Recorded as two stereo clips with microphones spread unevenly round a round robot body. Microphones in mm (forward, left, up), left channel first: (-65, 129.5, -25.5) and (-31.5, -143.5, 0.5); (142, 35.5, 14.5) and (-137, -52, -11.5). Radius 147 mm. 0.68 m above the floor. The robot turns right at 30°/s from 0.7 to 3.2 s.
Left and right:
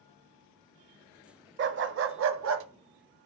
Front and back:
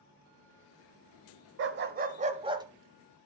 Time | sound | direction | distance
1.6 | a dog barking | 115° right | 0.6 m